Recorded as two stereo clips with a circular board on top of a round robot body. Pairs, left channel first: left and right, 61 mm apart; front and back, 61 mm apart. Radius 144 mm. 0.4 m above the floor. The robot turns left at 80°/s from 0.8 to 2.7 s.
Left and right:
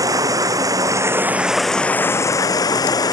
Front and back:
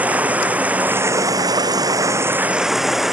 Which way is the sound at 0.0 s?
115° right.